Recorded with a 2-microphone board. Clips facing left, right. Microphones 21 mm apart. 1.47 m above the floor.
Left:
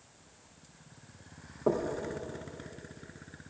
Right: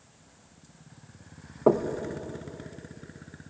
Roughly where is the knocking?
Right.